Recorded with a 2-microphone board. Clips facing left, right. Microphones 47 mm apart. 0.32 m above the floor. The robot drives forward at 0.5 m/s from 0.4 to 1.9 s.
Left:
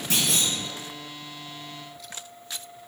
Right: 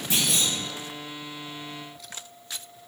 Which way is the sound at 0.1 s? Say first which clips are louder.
Even; 80° left.